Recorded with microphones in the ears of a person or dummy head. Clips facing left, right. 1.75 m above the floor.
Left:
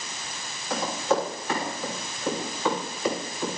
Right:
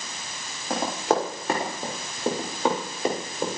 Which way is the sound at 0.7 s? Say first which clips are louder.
Right 1 dB; 45° right (ahead or behind).